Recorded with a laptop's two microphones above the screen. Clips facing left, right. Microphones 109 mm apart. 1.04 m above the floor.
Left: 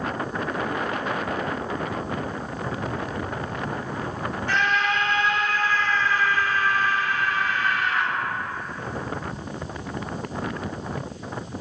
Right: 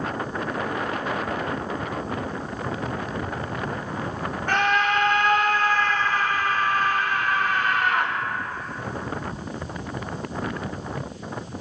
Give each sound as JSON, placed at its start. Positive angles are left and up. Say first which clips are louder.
{"t": 4.5, "sound": "a scream", "louder": "right 3 dB", "side_deg": -50, "distance_m": 1.6}